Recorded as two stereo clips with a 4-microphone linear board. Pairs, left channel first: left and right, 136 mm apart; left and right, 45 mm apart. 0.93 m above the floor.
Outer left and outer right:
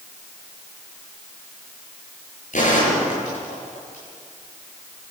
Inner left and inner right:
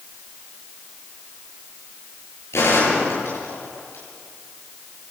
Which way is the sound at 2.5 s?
70° left (ahead or behind).